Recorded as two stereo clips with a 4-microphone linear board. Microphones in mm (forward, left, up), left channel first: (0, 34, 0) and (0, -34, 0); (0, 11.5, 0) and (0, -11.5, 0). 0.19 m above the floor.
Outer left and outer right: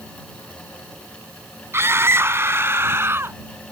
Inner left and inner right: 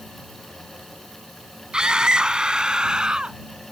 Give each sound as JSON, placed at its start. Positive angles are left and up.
{"t": 1.7, "sound": "a scream", "side_deg": -40}